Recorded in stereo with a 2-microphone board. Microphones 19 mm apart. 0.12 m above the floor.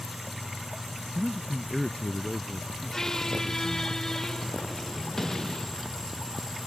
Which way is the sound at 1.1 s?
30° left (ahead or behind).